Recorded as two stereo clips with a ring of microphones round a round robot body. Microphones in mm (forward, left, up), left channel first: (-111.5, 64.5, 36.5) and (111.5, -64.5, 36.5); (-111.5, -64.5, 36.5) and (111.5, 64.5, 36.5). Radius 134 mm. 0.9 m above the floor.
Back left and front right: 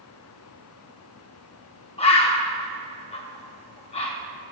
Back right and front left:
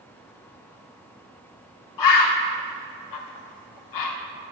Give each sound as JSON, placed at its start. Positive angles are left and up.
{"t": 2.0, "sound": "a bird", "azimuth_deg": -140, "distance_m": 0.9}